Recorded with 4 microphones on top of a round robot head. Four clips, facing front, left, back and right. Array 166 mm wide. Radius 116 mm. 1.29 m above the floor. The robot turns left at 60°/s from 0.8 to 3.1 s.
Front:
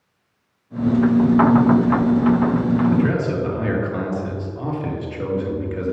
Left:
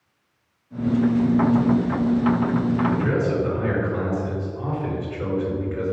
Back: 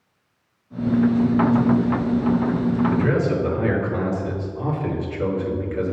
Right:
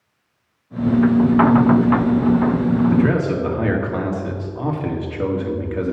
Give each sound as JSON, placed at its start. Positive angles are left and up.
{"t": 2.9, "sound": "a man speaking", "azimuth_deg": -60, "distance_m": 1.8}